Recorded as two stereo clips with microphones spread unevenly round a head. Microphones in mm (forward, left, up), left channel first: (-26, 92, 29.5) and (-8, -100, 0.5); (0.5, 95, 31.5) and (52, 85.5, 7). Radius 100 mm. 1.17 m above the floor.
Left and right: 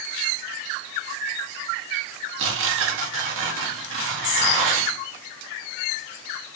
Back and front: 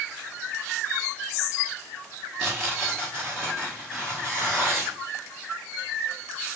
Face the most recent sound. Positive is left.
turn(degrees=-90)